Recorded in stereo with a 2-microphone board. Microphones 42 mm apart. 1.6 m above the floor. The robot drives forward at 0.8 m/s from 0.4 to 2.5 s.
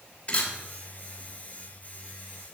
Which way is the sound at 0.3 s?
35° left (ahead or behind).